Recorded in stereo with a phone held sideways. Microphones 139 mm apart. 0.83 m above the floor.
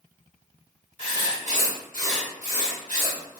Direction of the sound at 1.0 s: 65° left (ahead or behind).